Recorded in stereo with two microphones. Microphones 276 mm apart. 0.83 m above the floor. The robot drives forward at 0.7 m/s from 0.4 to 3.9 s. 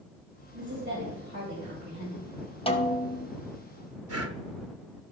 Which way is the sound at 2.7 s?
20° left (ahead or behind).